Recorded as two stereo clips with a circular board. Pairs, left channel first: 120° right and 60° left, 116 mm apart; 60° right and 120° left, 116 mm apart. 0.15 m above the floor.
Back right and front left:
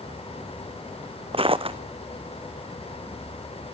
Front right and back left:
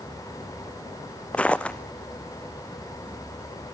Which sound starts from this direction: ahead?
Footsteps, at 1.3 s.